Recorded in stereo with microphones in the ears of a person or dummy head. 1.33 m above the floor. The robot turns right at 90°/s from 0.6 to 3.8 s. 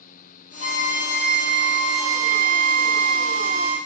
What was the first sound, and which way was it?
A violin, 35° left.